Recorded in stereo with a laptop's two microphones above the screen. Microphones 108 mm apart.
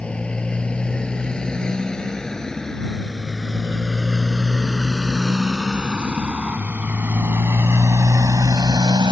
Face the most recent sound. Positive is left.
turn(degrees=-45)  # may be behind; listen again after turning